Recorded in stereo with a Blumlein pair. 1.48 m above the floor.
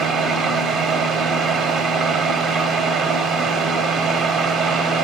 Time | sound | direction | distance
0.0 | a fan | 25° right | 0.7 m